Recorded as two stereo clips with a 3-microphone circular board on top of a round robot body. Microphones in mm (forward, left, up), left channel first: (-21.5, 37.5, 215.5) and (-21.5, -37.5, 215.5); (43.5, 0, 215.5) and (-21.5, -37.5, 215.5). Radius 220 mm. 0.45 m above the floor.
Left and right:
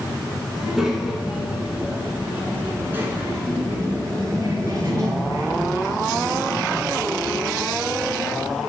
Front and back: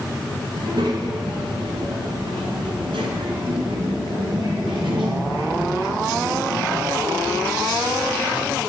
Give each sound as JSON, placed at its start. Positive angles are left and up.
{"t": 0.6, "sound": "a child speaking", "azimuth_deg": -175, "distance_m": 4.5}